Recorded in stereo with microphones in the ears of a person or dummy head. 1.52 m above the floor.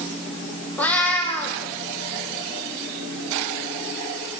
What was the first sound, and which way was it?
A cat meowing, 10° left (ahead or behind).